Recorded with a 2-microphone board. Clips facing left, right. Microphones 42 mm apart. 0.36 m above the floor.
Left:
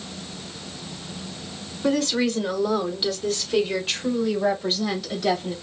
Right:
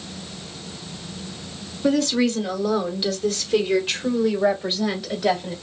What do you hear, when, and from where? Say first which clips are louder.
1.8 s a woman speaking: right 2 dB; 15° left (ahead or behind), 1.3 m; by 5.5 s 15° right (ahead or behind), 2 m